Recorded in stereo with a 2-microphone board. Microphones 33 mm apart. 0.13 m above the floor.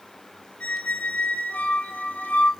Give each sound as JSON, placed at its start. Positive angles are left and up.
{"t": 0.6, "sound": "a squeak", "side_deg": 50, "distance_m": 0.8}